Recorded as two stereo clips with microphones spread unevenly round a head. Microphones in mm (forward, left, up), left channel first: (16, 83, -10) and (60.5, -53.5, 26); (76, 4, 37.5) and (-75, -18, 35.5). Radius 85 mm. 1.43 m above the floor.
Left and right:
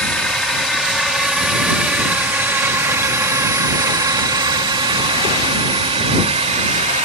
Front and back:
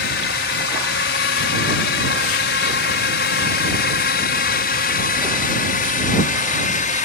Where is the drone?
25° left; by 7.1 s 30° right.